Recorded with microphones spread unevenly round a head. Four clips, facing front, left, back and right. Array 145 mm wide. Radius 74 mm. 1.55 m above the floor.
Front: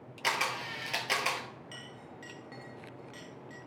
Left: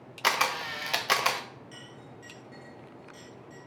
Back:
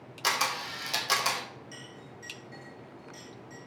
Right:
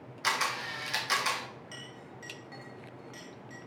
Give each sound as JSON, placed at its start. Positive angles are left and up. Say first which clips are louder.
{"t": 0.2, "sound": "a camera shutter", "louder": "left 4 dB, back 2 dB", "azimuth_deg": 90, "distance_m": 0.5}
{"t": 1.7, "sound": "a clink", "louder": "even, back 1 dB", "azimuth_deg": -35, "distance_m": 1.0}